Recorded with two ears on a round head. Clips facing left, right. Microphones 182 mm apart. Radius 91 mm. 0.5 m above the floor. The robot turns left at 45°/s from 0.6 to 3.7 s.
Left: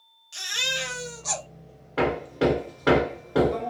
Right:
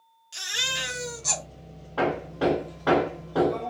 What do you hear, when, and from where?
0.3 s a baby crying: 5° right, 1.3 m; by 1.4 s 40° right, 1.3 m
2.0 s hammering: 25° left (ahead or behind), 1.1 m; by 3.7 s 20° left (ahead or behind), 1.1 m